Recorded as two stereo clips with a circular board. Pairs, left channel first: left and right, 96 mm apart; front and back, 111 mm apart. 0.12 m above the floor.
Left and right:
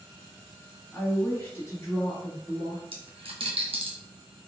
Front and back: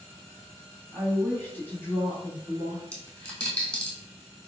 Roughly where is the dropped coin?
Right.